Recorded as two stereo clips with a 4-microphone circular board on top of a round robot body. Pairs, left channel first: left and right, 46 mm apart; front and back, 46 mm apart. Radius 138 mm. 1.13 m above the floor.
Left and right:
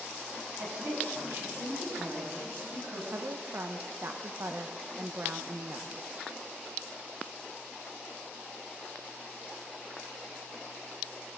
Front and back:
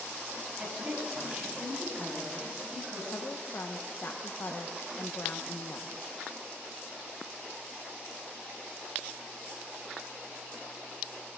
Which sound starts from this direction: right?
A woman speaking, at 0.6 s.